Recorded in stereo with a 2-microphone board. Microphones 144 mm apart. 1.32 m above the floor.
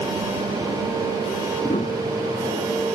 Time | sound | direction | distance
1.6 | a piano | 60° left (ahead or behind) | ?